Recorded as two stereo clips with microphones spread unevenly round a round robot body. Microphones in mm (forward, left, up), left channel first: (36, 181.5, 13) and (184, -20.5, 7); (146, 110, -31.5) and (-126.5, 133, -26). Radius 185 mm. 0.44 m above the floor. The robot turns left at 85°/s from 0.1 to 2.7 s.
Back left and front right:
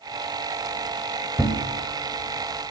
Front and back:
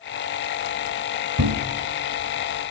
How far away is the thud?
About 0.8 m.